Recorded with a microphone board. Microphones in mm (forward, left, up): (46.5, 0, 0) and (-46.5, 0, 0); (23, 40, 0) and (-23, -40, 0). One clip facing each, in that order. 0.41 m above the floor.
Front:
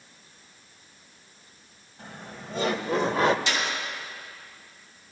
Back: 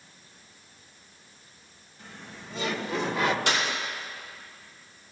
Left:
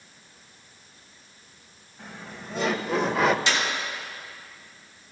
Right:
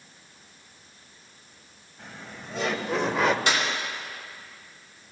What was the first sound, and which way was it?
Laughter, 30° right.